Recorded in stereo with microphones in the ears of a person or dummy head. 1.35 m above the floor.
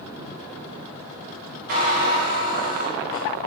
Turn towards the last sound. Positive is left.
turn(degrees=-45)  # may be behind; listen again after turning